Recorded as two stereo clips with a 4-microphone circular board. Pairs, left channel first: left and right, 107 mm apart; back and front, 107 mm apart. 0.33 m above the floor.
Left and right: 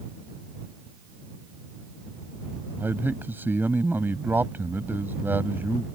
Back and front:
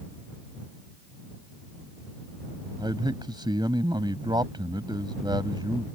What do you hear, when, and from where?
2.8 s a man speaking: 25° right